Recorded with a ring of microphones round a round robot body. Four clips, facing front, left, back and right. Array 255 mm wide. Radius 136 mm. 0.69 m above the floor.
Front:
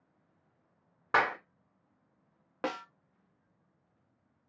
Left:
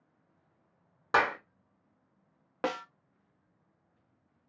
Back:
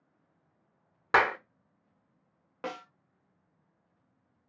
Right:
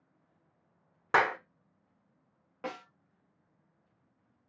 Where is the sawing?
No sawing in this recording.